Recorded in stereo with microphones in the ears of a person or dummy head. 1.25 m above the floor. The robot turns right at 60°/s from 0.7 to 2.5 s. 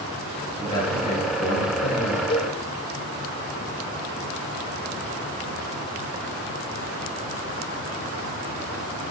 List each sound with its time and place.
0.6 s a man speaking: 20° left, 8 m; by 2.2 s 110° left, 8 m
2.3 s a cowbell: 25° left (ahead or behind), 0.7 m; by 2.6 s 35° left (ahead or behind), 0.7 m